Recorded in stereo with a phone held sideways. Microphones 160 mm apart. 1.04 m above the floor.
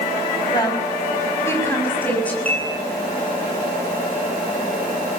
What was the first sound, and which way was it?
A woman speaking, 30° left (ahead or behind).